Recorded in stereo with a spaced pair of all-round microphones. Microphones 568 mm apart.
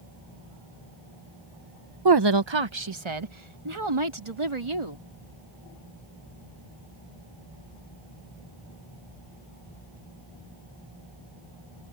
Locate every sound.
2.0 s a woman speaking: 40° right (ahead or behind); by 5.0 s 60° right (ahead or behind)